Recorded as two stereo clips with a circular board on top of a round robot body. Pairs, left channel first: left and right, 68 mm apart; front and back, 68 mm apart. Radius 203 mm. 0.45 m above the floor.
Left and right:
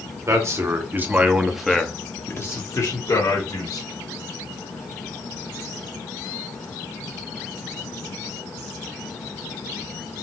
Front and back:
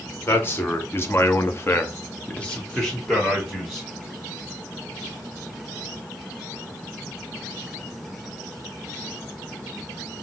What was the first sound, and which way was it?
A man speaking, 55° right.